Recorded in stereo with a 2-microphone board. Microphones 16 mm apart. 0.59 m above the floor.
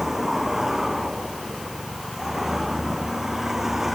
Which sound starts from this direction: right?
A vehicle, at 0.0 s.